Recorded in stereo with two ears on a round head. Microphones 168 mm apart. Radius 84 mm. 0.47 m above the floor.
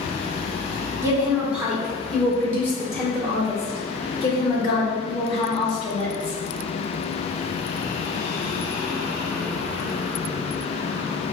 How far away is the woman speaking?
About 1.2 m.